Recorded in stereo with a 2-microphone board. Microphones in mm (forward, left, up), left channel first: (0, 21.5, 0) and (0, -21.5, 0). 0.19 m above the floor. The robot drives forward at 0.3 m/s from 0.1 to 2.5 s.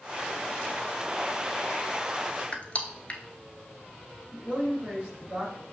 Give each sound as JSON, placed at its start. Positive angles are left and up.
{"t": 2.5, "sound": "crushing", "side_deg": 30, "distance_m": 0.7}
{"t": 4.3, "sound": "a man speaking", "side_deg": -25, "distance_m": 1.8}